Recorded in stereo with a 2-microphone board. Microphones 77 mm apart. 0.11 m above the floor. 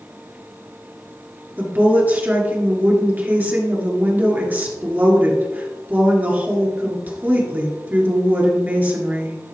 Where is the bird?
No bird in this recording.